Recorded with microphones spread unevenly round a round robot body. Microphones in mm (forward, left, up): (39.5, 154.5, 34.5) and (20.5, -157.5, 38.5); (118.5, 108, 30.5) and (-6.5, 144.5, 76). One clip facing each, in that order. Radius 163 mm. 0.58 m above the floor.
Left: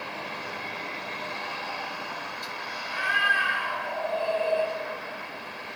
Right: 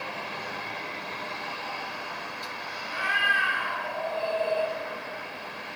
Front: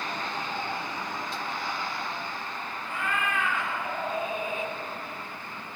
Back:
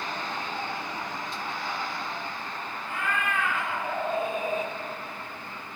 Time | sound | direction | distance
2.8 | a cat meowing | 135° left | 2.5 m